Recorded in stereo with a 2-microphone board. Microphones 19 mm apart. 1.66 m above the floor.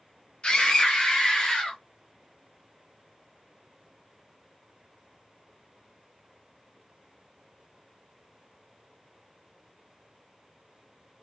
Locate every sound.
0.4 s a scream: 60° left (ahead or behind), 1.1 m; by 1.8 s 65° left (ahead or behind), 2 m